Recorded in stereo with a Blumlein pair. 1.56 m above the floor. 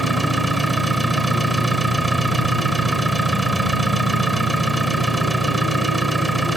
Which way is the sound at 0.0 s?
5° right.